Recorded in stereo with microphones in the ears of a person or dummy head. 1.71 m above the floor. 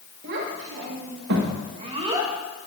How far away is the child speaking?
About 2 m.